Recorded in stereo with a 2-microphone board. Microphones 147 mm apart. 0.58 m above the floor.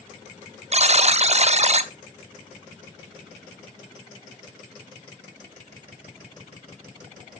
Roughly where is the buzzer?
Right.